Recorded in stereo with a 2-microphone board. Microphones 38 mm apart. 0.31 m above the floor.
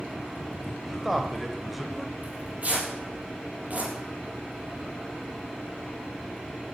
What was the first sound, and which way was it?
A man speaking, 5° right (ahead or behind).